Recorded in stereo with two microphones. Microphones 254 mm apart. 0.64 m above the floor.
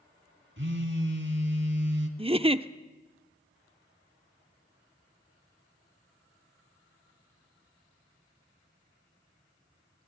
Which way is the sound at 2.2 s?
20° right (ahead or behind).